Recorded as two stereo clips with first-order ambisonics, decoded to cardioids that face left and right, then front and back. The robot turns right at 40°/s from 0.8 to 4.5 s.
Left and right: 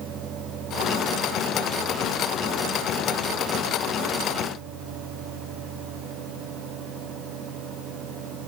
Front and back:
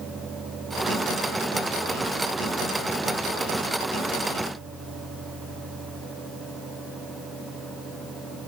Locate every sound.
Only background noise.